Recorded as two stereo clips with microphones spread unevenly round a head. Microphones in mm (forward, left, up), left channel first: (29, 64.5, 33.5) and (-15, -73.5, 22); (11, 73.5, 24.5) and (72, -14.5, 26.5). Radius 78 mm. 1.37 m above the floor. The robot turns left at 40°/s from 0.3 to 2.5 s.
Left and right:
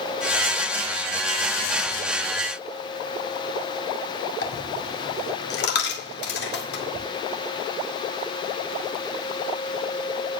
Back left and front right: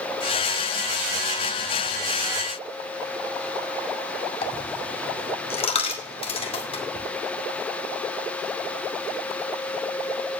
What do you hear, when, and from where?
4.4 s a dropped coin: 90° left, 1.9 m